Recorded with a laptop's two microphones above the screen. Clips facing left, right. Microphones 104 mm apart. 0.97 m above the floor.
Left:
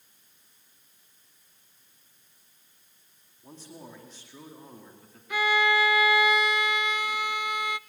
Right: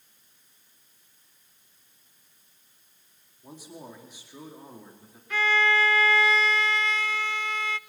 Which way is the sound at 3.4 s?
10° right (ahead or behind).